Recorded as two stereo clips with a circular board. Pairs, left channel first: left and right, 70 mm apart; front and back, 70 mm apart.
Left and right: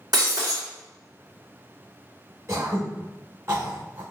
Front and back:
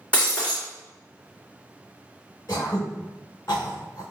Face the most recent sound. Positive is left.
turn(degrees=-40)